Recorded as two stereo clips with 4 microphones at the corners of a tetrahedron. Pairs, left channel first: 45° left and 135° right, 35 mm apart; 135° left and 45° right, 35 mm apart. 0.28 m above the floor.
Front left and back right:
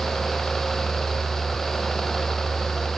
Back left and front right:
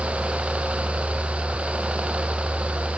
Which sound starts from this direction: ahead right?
A helicopter, at 0.0 s.